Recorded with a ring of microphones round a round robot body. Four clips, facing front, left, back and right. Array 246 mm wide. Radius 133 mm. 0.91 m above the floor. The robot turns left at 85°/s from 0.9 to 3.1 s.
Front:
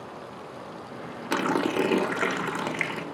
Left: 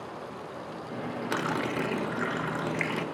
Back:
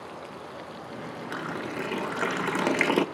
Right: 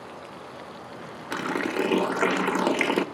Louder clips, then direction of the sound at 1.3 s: Right 4 dB, front 10 dB; straight ahead.